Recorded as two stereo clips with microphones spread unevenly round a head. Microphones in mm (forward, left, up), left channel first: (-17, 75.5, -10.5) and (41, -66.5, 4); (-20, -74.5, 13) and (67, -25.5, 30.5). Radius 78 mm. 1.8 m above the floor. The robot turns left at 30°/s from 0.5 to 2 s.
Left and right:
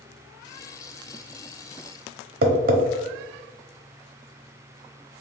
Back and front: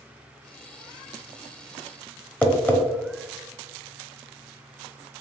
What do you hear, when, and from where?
2.4 s tapping: 75° right, 0.9 m